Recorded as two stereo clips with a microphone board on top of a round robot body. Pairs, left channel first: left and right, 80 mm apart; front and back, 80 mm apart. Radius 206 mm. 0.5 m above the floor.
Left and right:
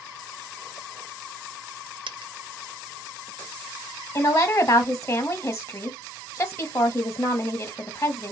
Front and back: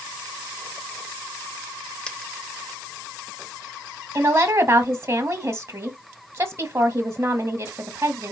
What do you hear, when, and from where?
2.1 s a dropped coin: 80° right, 0.8 m
4.2 s a woman speaking: 140° left, 1.3 m